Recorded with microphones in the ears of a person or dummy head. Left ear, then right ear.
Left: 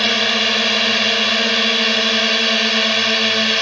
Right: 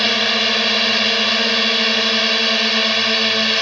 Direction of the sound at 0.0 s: 5° right (ahead or behind).